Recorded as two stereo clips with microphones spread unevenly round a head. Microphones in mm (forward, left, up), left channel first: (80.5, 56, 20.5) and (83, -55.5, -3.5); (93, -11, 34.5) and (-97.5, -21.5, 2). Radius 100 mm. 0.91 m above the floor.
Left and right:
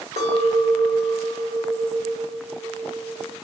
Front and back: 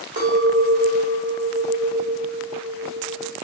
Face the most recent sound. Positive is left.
turn(degrees=-130)